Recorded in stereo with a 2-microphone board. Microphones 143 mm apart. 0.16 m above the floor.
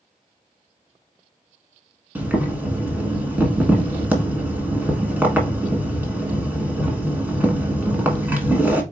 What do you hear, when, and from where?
2.1 s boiling: 10° right (ahead or behind), 1.1 m